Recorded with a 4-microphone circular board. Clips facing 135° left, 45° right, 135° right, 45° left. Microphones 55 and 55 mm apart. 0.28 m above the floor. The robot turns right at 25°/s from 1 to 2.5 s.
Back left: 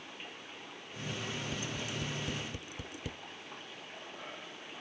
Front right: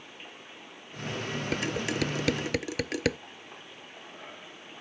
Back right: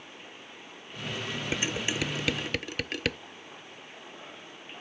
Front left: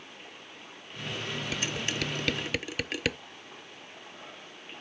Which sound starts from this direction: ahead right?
Dishes clattering, at 1.5 s.